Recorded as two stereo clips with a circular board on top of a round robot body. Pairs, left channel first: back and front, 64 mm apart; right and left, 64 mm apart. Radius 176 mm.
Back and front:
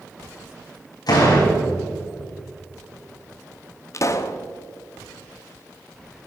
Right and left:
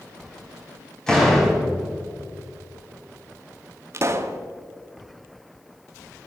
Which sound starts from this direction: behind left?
A pop, at 3.9 s.